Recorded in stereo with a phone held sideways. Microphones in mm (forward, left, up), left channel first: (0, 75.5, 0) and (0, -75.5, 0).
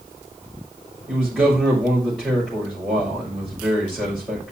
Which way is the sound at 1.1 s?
5° left (ahead or behind).